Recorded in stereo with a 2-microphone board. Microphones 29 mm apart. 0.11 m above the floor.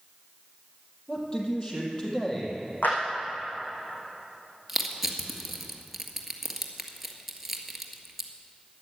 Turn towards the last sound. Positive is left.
turn(degrees=0)  # may be behind; listen again after turning